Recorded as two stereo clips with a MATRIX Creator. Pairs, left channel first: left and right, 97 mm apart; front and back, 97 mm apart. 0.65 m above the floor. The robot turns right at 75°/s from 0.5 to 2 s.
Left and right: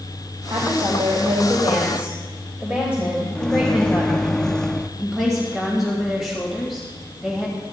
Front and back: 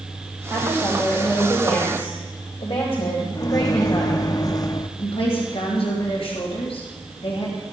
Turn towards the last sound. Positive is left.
turn(degrees=0)